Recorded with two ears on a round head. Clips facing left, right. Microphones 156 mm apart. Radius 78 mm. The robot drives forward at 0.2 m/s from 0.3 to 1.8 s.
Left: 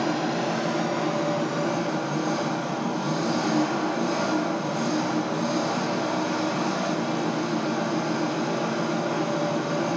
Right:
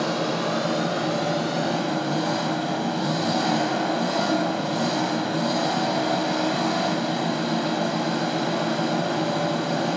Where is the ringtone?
No ringtone in this recording.